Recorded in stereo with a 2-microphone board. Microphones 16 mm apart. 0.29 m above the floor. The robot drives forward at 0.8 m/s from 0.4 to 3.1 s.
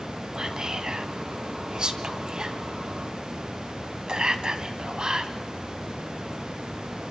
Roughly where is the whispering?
Right.